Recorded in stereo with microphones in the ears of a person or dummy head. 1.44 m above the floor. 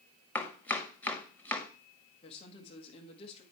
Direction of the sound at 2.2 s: 35° left (ahead or behind).